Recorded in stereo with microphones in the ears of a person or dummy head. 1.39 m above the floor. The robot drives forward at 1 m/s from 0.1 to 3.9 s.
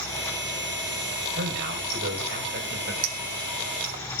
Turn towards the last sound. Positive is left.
turn(degrees=-35)  # may be behind; listen again after turning